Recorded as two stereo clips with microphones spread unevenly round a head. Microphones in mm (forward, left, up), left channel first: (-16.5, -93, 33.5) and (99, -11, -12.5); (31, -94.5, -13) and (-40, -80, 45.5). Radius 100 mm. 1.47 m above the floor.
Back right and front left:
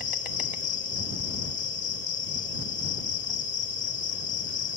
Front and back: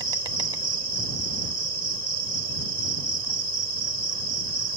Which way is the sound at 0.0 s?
160° left.